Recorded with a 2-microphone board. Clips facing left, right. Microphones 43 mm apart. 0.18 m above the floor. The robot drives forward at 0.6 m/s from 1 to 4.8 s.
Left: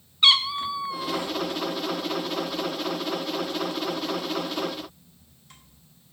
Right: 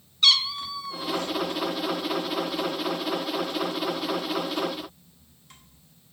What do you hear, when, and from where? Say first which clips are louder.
0.2 s a cat meowing: left 2 dB; 25° left (ahead or behind), 0.7 m; by 1.3 s 20° left (ahead or behind), 0.9 m